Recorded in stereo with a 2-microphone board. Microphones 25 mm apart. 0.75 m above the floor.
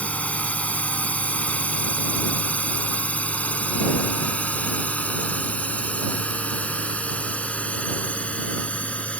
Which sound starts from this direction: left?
A drone, at 0.0 s.